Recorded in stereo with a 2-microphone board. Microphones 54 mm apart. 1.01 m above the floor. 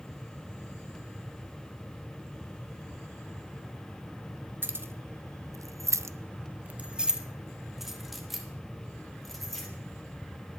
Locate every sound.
4.6 s keys jangling: 40° right (ahead or behind), 1.0 m; by 9.7 s 5° left (ahead or behind), 2.5 m